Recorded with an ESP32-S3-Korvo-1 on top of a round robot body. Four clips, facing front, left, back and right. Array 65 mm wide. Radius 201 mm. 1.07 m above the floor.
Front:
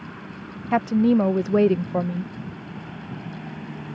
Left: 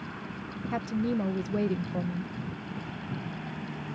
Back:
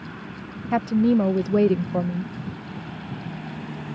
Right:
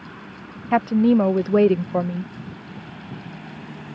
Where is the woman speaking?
65° right.